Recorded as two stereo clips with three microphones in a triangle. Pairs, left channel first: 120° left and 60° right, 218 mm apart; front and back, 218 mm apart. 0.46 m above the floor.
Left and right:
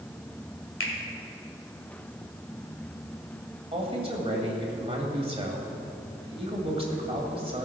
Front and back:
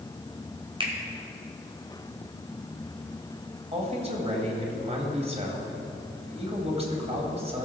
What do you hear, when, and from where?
0.8 s a finger snap: 115° left, 1.9 m
3.7 s a man speaking: 120° right, 2 m